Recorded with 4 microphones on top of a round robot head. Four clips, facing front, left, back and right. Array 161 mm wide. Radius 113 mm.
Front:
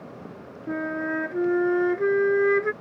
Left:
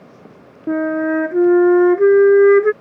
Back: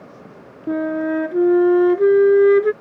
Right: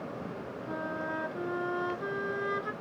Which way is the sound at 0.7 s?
115° left.